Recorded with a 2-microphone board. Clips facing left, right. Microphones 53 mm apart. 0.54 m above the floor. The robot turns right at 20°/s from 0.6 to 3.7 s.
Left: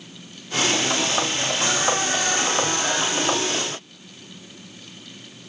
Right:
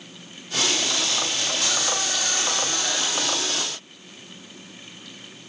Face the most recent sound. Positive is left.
No sound to turn to.